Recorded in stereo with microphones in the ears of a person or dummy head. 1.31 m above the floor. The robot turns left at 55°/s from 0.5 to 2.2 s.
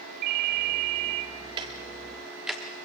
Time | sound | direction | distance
0.2 | a ringtone | 90° right | 0.6 m
1.6 | ticking | 20° right (ahead or behind) | 0.9 m